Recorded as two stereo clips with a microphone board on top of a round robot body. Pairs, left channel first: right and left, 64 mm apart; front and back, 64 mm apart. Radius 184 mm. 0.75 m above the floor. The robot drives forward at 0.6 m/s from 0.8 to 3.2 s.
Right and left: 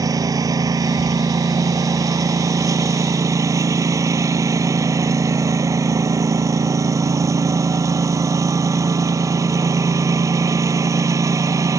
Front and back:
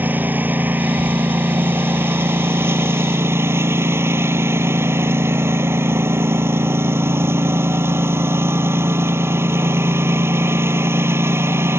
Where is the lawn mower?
120° left; by 11.8 s 130° left.